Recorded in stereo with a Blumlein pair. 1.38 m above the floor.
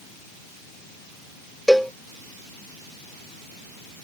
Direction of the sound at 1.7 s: Straight ahead.